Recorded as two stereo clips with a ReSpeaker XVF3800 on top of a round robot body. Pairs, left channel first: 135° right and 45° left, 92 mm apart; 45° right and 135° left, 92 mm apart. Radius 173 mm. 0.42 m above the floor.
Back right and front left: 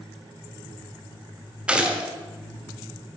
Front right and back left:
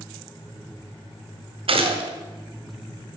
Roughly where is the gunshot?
Behind left.